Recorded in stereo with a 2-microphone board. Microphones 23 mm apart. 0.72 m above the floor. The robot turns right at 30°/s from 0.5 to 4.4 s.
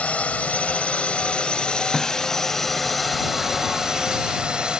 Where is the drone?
100° left; by 4.8 s 140° right.